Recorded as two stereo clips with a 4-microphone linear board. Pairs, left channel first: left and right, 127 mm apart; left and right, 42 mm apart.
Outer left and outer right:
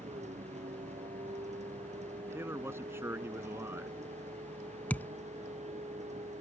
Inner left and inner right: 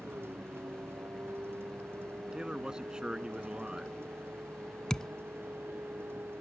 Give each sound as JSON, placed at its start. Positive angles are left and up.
{"t": 0.0, "sound": "a vehicle", "side_deg": -65}
{"t": 2.3, "sound": "a man speaking", "side_deg": -20}
{"t": 4.9, "sound": "a thud", "side_deg": 15}